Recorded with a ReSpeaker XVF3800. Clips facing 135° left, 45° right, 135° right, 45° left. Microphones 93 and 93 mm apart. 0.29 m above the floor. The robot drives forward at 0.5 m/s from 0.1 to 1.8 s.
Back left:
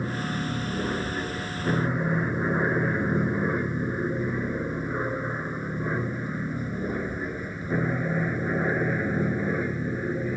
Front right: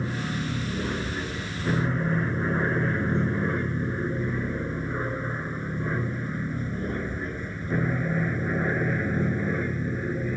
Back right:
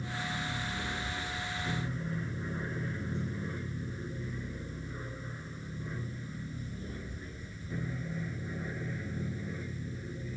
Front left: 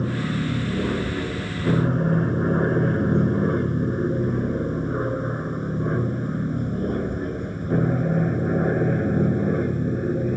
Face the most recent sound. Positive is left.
turn(degrees=55)